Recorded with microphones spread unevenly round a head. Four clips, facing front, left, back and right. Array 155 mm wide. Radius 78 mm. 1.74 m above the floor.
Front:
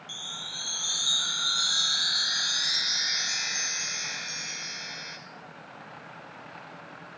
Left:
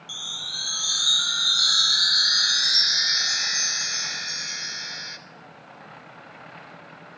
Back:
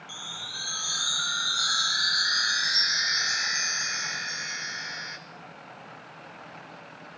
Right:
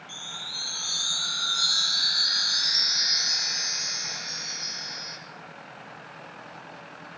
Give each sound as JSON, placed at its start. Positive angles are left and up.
{"t": 0.1, "sound": "a chime", "azimuth_deg": 145, "distance_m": 0.7}